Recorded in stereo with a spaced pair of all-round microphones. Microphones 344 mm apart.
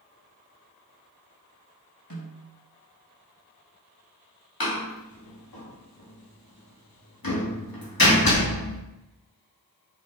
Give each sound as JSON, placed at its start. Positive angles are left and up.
{"t": 2.1, "sound": "a snare drum", "side_deg": 70, "distance_m": 4.5}
{"t": 4.6, "sound": "a door slam", "side_deg": 80, "distance_m": 2.0}